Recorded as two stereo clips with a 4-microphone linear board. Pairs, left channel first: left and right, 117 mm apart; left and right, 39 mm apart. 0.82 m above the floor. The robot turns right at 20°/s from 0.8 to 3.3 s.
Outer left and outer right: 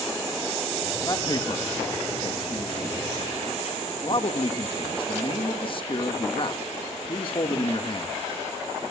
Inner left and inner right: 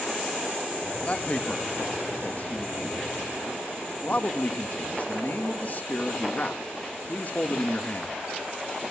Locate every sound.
1.0 s a man speaking: 45° left, 1.3 m; by 8.2 s 90° left, 1.3 m